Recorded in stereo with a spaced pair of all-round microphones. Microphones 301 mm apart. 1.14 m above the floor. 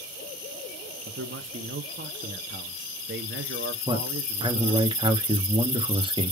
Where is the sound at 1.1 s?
40° right (ahead or behind), 0.7 m.